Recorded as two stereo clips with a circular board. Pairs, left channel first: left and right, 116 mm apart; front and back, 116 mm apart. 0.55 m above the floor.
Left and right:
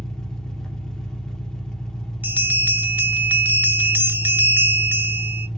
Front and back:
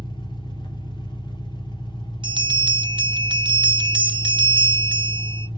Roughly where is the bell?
Behind.